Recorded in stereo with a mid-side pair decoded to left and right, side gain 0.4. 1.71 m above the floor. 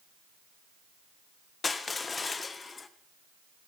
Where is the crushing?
40° left, 1.3 m.